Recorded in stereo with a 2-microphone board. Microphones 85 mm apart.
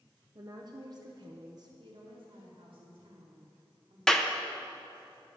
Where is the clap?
5° left (ahead or behind), 0.7 m.